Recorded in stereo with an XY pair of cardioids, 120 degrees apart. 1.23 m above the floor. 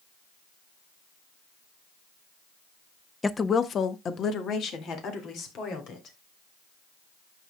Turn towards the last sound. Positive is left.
turn(degrees=65)